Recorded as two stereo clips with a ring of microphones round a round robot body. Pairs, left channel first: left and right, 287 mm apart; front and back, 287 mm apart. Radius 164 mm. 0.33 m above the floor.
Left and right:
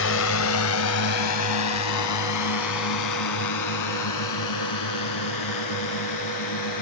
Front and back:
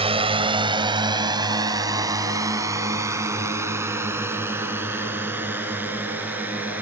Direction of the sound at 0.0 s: 115° left.